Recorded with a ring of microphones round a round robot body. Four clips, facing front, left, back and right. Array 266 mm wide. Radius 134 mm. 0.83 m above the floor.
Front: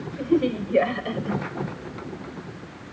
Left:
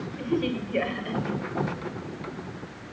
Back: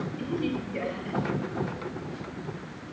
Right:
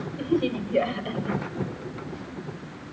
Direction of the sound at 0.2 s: 20° right.